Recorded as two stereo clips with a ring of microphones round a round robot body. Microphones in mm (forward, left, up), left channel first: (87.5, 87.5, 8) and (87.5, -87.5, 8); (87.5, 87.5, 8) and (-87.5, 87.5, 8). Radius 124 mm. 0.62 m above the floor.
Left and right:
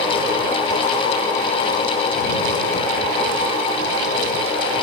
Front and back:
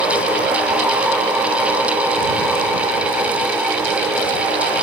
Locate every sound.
Only background noise.